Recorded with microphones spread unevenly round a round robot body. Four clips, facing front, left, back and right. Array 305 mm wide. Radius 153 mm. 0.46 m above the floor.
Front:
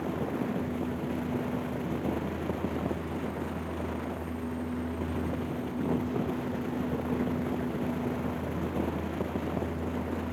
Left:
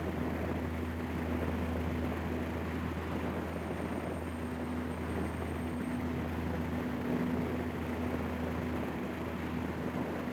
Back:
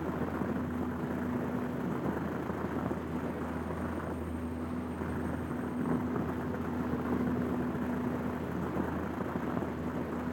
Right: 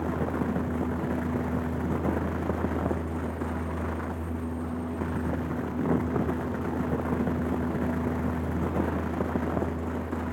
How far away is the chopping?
I don't hear chopping.